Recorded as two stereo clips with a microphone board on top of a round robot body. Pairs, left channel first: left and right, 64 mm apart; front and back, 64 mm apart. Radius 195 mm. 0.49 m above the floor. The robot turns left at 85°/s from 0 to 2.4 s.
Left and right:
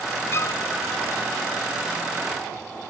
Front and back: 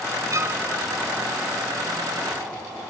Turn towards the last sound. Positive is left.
turn(degrees=-35)